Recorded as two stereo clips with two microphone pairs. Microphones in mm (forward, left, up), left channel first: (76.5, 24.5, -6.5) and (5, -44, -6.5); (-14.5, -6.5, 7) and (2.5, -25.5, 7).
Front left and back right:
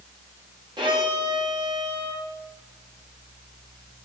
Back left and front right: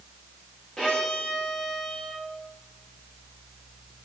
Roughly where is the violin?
Behind.